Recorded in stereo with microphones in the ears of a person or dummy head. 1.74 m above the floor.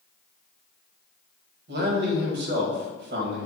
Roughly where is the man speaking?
Right.